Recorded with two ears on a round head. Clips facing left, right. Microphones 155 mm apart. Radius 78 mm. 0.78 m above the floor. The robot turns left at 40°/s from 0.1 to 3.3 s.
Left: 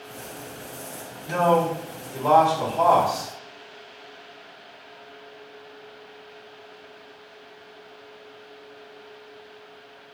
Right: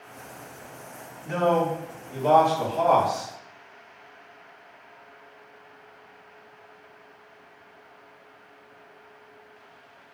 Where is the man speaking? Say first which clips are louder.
Left 2 dB; 100° right, 1.5 m; by 3.3 s straight behind, 1.5 m.